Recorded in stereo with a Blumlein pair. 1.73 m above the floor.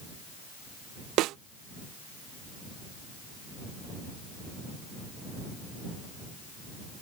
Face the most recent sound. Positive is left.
turn(degrees=-35)